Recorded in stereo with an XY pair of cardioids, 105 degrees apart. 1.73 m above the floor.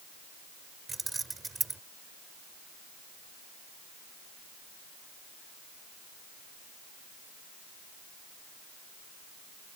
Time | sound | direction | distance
0.9 | keys jangling | 25° right | ?